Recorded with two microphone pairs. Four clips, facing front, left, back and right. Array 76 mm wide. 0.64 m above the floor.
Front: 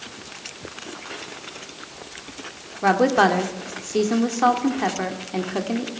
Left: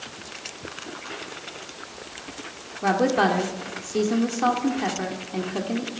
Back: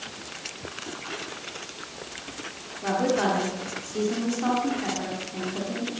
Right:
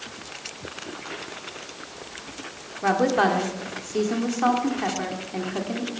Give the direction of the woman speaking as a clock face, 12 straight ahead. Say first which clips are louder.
Even, front 7 dB; 12 o'clock.